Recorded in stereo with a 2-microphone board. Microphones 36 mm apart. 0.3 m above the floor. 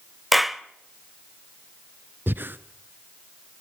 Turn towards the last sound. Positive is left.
turn(degrees=-65)  # may be behind; listen again after turning